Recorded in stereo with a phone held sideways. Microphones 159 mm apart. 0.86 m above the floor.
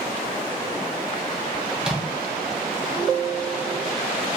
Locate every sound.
1.8 s a microwave: 5° right (ahead or behind), 0.5 m